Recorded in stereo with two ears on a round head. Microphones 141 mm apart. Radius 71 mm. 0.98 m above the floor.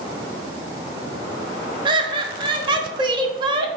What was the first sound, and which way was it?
Laughter, 30° right (ahead or behind).